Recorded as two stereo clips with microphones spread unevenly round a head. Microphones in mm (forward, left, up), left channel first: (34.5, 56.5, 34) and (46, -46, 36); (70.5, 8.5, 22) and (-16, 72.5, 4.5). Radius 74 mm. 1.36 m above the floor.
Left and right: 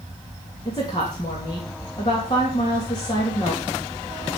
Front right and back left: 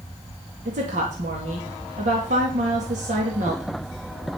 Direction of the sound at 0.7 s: 155° left.